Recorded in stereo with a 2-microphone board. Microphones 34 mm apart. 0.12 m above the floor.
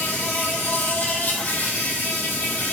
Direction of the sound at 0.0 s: 70° left (ahead or behind).